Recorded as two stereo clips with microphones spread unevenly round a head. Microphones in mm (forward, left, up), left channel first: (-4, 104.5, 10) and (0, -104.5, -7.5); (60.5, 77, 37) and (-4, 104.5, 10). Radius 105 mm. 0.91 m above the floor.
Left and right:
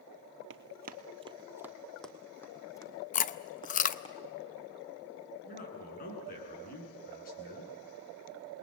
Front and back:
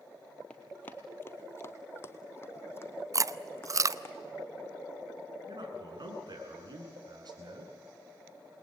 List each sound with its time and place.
0.5 s running footsteps: 80° right, 1.3 m; by 4.1 s 25° left, 4 m
3.1 s chewing: 145° left, 0.7 m
5.5 s a man speaking: 140° left, 8.5 m